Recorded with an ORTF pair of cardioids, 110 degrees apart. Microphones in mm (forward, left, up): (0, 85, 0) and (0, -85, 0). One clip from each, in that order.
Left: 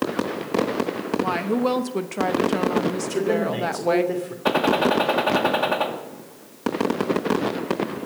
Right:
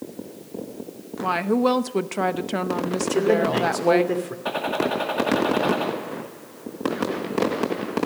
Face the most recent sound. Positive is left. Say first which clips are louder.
# left 6 dB
turn(degrees=35)